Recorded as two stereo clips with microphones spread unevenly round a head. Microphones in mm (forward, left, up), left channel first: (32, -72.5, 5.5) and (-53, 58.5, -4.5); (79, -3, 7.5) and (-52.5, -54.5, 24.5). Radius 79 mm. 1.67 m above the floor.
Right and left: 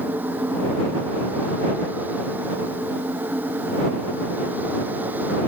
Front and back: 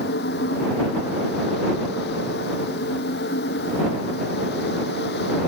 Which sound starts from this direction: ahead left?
A fan, at 0.0 s.